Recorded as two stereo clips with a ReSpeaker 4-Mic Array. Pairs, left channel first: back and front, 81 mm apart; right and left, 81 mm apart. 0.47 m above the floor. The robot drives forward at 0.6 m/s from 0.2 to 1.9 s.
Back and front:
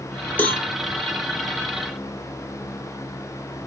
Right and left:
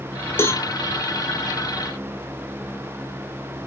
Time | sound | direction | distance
0.4 | a cowbell | 125° right | 0.8 m